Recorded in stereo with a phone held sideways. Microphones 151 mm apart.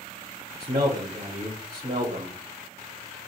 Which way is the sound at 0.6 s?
40° right (ahead or behind).